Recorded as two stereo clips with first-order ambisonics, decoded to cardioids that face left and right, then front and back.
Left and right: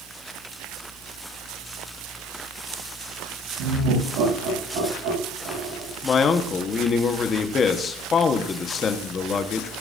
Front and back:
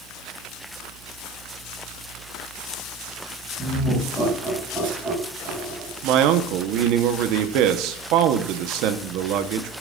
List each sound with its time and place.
3.6 s laughter: 85° right, 8 m; by 5.9 s 95° right, 9 m
6.0 s a man speaking: 155° left, 1.1 m